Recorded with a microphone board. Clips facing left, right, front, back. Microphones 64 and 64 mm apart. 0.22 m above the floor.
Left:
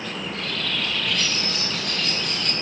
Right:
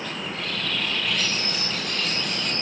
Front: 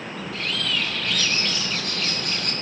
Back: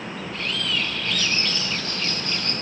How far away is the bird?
About 8.5 m.